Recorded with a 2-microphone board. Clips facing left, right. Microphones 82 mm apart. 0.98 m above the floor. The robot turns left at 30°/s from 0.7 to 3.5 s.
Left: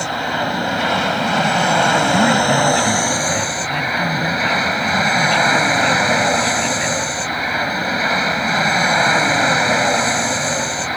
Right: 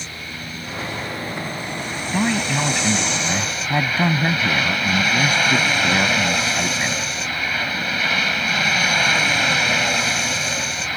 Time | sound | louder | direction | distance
0.0 | an aircraft | left 15 dB | 110° left | ?
2.1 | a man speaking | left 7 dB | 15° left | ?